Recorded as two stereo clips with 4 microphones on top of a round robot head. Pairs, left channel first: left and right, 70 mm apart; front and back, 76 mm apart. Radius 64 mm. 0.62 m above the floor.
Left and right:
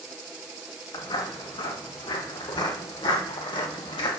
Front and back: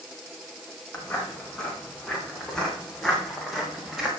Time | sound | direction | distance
0.9 | footsteps | 75° left | 7.5 m